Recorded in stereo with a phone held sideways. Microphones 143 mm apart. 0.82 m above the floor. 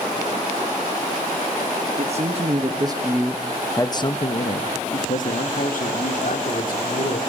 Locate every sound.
2.0 s a man speaking: 50° right (ahead or behind), 1.1 m; by 7.2 s 75° left (ahead or behind), 2.5 m